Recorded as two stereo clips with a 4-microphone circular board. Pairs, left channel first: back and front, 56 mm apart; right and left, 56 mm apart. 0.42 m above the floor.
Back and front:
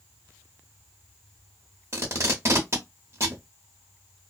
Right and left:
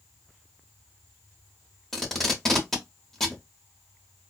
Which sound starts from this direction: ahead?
Tape being pulled, at 1.9 s.